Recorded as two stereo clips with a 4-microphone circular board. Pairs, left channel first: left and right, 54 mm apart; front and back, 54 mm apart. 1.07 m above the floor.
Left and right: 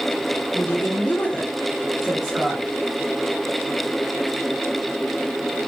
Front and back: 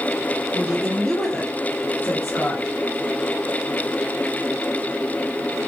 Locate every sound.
0.5 s a woman speaking: 110° left, 0.8 m; by 2.8 s 20° right, 1.0 m